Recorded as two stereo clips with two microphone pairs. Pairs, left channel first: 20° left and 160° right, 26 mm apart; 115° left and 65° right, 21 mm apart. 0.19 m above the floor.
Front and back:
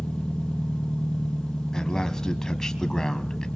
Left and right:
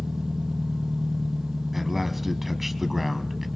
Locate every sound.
0.0 s an engine running: 15° right, 3 m
1.7 s a man speaking: 10° left, 1.1 m